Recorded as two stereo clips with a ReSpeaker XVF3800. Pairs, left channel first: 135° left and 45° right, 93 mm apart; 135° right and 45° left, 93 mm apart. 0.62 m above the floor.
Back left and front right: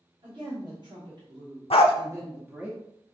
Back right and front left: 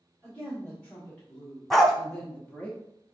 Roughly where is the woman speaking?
Ahead right.